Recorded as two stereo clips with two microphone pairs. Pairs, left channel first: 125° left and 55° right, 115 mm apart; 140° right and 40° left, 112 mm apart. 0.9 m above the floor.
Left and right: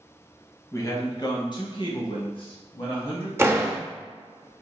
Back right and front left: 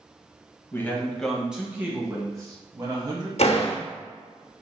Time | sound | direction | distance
0.7 | a man speaking | 165° left | 0.9 m
3.4 | a door slam | 125° right | 0.7 m